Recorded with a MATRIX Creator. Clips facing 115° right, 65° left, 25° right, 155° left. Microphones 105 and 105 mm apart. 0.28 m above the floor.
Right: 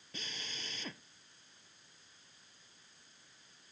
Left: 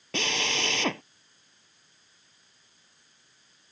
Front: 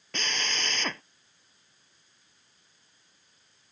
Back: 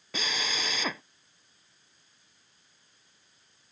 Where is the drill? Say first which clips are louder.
Left 18 dB, even; 75° left.